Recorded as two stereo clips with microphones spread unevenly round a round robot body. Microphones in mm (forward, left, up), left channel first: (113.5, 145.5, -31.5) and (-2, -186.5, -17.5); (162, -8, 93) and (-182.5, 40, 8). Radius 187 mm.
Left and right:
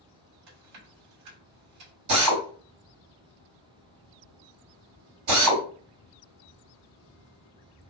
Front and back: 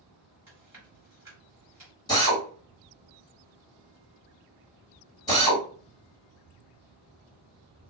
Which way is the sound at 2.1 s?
95° right.